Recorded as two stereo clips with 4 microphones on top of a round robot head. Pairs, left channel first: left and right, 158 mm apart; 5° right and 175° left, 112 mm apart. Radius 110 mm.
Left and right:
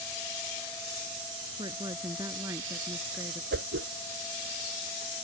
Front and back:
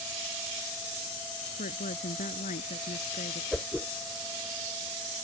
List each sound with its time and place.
1.6 s a woman speaking: 20° right; by 3.4 s 10° right
3.5 s a whoosh: 100° right